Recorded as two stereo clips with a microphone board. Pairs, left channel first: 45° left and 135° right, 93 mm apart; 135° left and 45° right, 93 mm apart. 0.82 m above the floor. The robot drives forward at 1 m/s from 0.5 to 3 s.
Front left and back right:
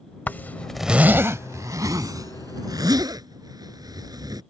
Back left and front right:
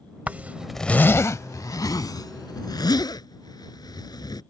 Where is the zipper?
5° left; by 4.4 s straight behind.